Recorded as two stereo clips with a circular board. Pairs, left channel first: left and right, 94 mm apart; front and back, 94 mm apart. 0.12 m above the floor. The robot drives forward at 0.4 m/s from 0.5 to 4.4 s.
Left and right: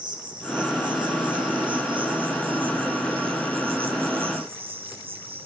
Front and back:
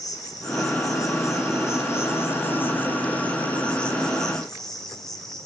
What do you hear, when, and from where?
0.0 s an insect: 50° right, 3 m; by 5.5 s 85° right, 2 m